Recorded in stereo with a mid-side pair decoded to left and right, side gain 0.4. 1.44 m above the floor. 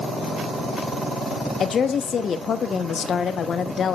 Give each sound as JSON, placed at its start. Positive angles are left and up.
{"t": 1.6, "sound": "a woman speaking", "azimuth_deg": 60, "distance_m": 1.0}